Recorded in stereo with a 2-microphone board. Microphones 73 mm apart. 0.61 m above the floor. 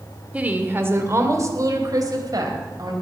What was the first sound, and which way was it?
A woman speaking, 20° right (ahead or behind).